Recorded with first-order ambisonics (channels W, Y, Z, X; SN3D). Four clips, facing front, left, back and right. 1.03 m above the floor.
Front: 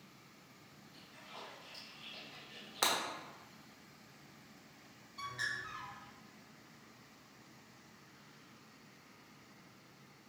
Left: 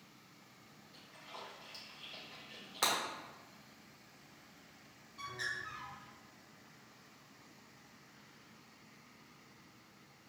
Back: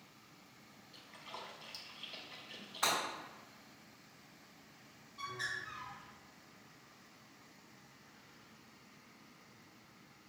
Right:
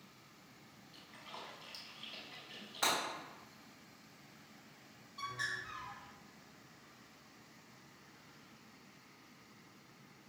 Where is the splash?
165° right, 0.9 m.